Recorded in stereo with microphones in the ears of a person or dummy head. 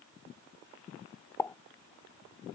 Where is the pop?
5° left (ahead or behind).